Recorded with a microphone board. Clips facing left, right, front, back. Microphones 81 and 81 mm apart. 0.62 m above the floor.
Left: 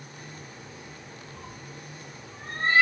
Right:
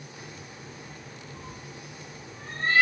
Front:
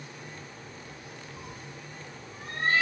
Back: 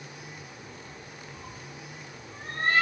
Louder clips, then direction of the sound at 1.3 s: Right 1 dB, even; 80° left.